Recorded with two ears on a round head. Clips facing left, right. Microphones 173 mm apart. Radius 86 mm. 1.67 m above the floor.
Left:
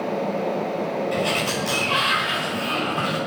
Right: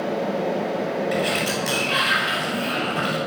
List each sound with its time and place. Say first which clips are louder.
1.1 s a sliding door: right 1 dB; 20° right (ahead or behind), 9 m